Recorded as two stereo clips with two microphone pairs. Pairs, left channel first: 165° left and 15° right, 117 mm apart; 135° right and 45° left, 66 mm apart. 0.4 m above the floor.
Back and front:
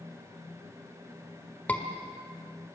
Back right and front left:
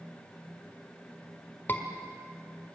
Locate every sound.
1.7 s a scream: 130° right, 1.3 m